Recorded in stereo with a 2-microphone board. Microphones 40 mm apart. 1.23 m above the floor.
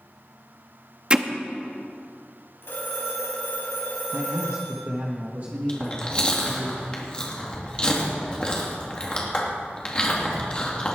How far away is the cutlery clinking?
I don't hear cutlery clinking.